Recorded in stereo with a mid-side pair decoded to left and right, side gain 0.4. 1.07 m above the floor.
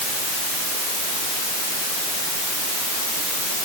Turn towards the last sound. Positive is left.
No sound to turn to.